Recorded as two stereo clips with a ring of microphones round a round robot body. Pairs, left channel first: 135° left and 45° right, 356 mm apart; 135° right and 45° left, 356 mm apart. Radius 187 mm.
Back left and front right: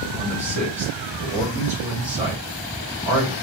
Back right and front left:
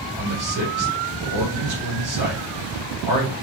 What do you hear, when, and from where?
0.2 s a man speaking: 25° left, 3 m